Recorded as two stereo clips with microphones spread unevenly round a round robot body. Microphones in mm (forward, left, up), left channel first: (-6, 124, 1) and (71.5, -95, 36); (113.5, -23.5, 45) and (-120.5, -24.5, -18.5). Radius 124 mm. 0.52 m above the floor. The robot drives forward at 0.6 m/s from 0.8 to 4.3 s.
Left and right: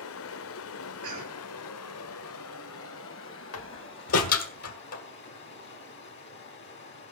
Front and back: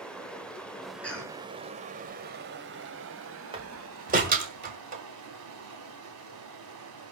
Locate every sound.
0.0 s running water: 90° left, 1.1 m; by 7.1 s 155° left, 2.5 m
1.0 s a cough: 90° right, 4 m
3.5 s a door slam: 120° left, 1.6 m; by 5.0 s 130° left, 1.8 m